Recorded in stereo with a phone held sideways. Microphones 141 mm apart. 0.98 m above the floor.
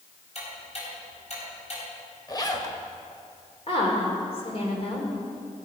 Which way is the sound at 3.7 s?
45° left (ahead or behind).